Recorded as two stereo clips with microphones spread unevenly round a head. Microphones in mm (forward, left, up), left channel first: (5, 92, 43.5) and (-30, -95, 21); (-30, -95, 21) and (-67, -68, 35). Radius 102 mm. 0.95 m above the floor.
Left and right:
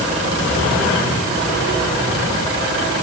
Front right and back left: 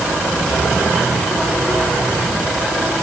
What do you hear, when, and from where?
Only background noise.